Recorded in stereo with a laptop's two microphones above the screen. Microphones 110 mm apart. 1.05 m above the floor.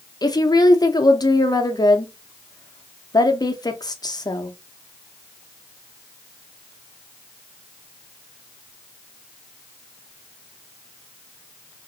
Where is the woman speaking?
35° left (ahead or behind), 0.5 m.